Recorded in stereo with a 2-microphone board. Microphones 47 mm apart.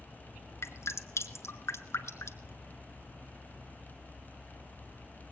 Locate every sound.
0.6 s dripping: 80° left, 1.3 m